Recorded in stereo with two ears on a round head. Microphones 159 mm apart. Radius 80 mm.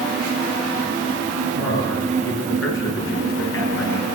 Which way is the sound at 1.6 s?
80° left.